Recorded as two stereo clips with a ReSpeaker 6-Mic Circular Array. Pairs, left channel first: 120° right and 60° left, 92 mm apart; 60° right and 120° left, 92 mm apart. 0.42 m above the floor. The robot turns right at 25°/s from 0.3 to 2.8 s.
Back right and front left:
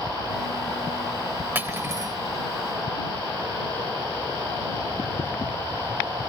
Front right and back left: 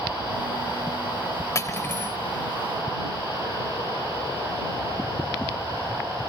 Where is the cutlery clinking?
10° right; by 2.2 s 5° left.